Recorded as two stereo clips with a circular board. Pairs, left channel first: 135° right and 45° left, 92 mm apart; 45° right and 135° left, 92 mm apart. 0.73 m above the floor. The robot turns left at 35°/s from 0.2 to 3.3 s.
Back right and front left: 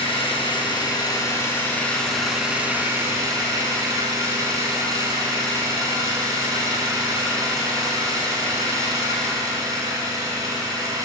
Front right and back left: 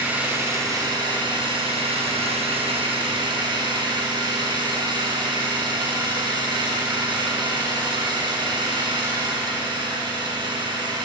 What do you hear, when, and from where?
0.0 s an engine running: 155° right, 7.5 m; by 11.1 s 95° left, 7.5 m